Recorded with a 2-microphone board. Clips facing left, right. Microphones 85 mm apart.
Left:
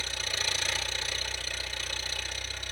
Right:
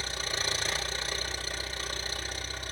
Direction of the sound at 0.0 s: 45° right (ahead or behind).